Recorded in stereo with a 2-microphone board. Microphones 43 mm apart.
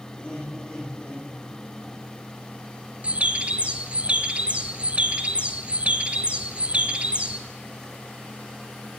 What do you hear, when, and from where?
0.1 s laughter: 25° left (ahead or behind), 7 m; by 2.0 s 20° left (ahead or behind), 6.5 m
3.0 s a bird: 30° right (ahead or behind), 1.0 m